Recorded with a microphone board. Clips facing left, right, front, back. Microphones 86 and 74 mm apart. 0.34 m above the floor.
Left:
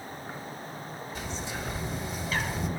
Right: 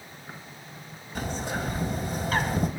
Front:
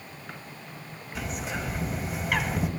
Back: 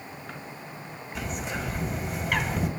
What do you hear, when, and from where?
1.1 s a bird: 90° right, 1.8 m